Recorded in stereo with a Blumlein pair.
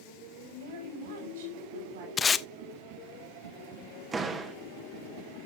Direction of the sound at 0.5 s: 60° right.